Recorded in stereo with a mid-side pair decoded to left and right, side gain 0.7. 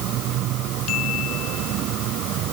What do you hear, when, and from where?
Only background noise.